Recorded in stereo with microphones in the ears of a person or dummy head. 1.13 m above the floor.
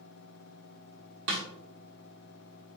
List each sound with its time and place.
1.3 s a snare drum: 70° right (ahead or behind), 1.3 m